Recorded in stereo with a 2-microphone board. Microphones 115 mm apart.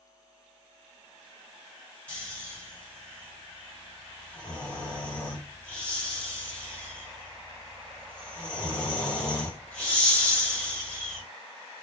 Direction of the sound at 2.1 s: 10° left (ahead or behind).